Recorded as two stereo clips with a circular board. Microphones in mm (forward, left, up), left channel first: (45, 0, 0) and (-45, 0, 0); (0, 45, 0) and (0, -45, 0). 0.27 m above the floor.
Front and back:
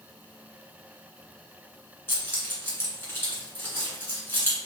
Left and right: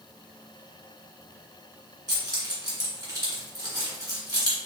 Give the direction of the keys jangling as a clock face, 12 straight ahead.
2 o'clock.